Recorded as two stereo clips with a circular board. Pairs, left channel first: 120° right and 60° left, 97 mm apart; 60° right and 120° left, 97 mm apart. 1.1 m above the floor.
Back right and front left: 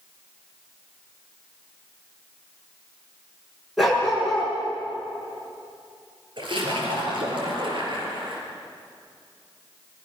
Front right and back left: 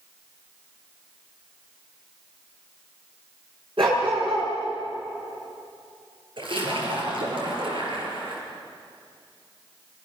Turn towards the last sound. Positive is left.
turn(degrees=90)